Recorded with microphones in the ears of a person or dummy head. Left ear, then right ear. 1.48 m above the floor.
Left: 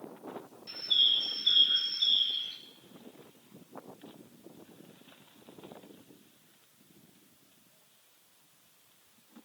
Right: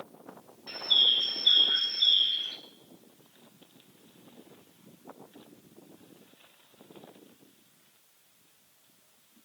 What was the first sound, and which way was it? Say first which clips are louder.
A bird: right 3 dB; 15° right (ahead or behind).